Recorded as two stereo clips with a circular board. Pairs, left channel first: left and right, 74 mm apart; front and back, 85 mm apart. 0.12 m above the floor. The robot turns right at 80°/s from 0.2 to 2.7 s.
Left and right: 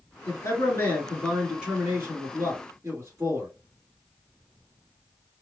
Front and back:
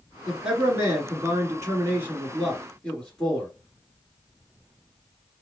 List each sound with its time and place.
0.3 s a man speaking: 90° left, 1.8 m; by 3.5 s 75° right, 1.8 m